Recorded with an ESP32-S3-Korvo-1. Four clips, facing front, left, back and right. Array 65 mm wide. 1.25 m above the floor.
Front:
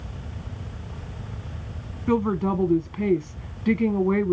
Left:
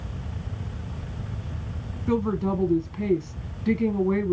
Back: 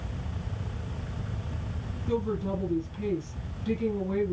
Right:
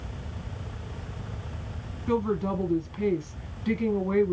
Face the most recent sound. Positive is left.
turn(degrees=15)